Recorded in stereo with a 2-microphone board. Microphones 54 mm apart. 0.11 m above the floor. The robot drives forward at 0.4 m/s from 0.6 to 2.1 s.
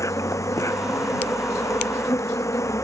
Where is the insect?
75° left (ahead or behind); by 2.8 s 70° left (ahead or behind).